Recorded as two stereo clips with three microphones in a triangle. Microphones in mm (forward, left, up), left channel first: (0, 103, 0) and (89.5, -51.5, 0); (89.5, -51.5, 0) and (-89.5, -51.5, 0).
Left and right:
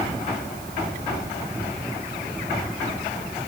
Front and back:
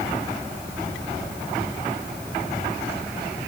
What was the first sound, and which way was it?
Only background noise.